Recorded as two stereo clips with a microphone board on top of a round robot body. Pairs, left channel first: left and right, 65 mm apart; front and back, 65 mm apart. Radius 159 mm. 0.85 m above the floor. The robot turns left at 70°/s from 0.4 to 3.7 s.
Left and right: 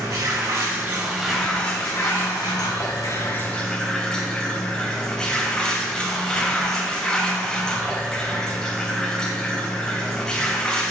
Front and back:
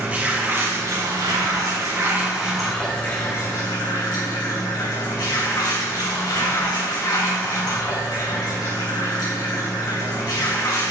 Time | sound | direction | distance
0.0 | running water | 120° right | 3 m